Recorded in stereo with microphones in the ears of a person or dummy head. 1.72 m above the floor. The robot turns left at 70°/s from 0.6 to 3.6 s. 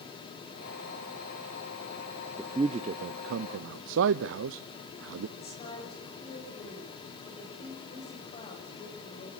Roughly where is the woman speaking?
Left.